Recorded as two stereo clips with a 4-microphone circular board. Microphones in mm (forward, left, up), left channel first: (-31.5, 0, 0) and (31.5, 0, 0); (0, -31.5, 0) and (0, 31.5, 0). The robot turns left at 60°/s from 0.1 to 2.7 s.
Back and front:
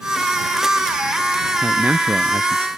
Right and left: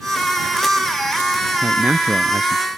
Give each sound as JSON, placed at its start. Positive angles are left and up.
{"t": 1.6, "sound": "a man speaking", "azimuth_deg": 60}